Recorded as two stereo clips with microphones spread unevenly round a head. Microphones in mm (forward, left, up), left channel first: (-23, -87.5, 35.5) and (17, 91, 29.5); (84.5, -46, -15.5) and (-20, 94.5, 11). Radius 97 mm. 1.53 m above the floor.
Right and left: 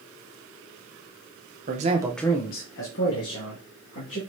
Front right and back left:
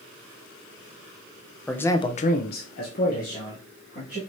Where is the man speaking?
35° left, 0.8 m; by 4.2 s 110° right, 2 m.